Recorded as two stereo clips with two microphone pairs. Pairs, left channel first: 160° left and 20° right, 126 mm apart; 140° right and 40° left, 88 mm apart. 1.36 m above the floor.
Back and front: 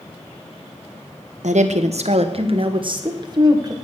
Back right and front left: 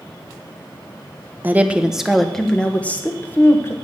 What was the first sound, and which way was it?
A woman speaking, 25° right.